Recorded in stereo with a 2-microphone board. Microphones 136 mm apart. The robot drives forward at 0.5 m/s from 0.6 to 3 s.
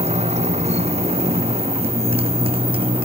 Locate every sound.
0.0 s a motorcycle: 50° right (ahead or behind); by 3.1 s 40° right (ahead or behind)